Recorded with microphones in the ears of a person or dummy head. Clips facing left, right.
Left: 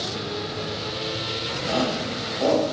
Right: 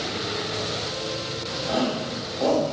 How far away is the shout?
About 5 m.